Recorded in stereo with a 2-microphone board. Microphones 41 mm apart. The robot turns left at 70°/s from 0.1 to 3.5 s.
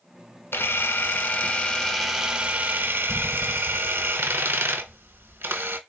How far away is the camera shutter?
About 0.6 m.